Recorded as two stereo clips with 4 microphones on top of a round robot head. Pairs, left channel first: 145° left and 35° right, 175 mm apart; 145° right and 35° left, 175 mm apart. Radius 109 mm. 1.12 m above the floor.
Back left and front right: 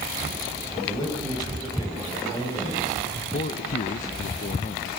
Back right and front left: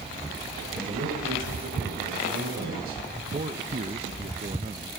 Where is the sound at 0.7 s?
75° left, 8.5 m.